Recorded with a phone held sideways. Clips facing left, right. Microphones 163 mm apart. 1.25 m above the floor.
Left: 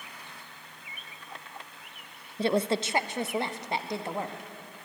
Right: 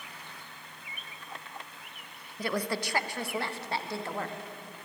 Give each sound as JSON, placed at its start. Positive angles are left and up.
{"t": 2.4, "sound": "a woman speaking", "side_deg": 25, "distance_m": 0.5}